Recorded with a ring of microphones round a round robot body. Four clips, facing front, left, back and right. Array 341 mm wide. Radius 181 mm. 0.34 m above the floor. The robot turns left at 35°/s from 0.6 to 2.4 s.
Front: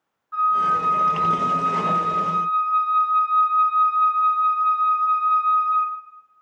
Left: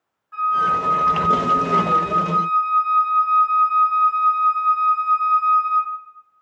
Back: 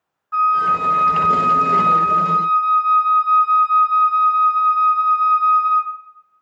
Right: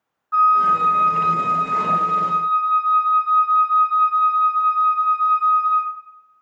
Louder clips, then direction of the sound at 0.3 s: Right 4 dB, back 3 dB; 135° right.